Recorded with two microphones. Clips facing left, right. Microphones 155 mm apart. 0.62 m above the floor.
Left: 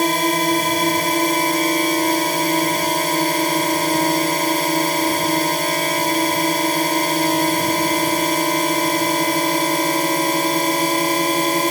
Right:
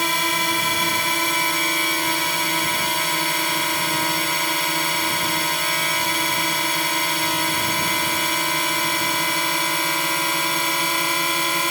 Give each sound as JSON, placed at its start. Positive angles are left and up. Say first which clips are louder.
{"t": 0.0, "sound": "a drone", "louder": "left 7 dB", "side_deg": 45}